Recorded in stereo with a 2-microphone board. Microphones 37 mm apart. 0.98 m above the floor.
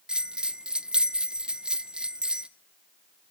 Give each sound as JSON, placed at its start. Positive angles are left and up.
{"t": 0.1, "sound": "a bell", "side_deg": -25, "distance_m": 0.5}